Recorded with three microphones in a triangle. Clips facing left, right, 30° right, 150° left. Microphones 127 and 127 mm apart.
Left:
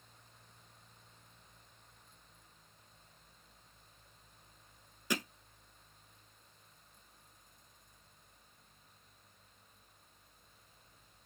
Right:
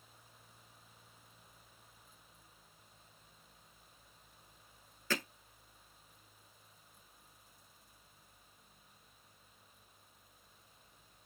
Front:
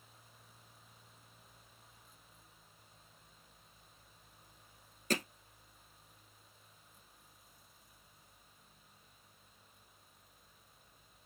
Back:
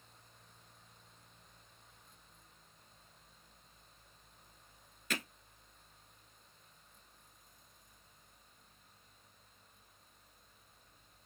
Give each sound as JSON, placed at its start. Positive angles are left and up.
{"t": 5.1, "sound": "hammering", "azimuth_deg": 15, "distance_m": 1.1}